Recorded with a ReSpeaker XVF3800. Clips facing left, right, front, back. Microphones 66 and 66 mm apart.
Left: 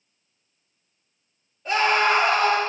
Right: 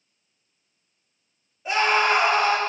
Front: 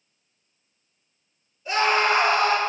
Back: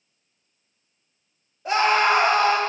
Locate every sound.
1.6 s a scream: 170° right, 3.5 m